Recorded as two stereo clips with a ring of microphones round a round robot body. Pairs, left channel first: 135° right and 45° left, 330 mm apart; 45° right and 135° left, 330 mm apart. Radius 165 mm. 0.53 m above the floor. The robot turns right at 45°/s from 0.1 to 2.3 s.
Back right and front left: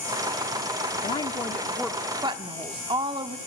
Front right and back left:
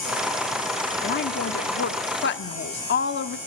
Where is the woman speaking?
80° right, 1.1 m; by 3.4 s 20° right, 1.1 m.